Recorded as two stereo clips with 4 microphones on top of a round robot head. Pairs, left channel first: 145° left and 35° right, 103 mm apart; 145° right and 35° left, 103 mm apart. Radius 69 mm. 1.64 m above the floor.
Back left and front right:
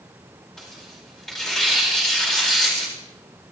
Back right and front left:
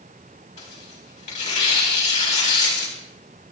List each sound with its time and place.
0.6 s tearing paper: 130° right, 4 m